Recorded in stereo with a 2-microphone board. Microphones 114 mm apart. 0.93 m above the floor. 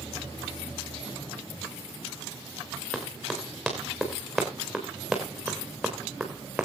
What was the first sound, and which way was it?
Running footsteps, 5° left (ahead or behind).